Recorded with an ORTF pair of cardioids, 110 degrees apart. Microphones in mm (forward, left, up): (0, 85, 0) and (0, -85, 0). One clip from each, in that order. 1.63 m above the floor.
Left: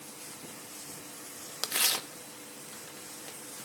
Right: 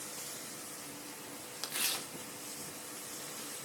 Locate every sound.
1.6 s tearing paper: 40° left, 1.1 m